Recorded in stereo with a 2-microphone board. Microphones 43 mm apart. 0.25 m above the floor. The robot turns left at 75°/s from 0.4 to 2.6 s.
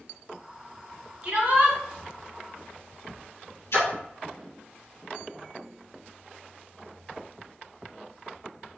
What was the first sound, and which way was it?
A shout, 30° right.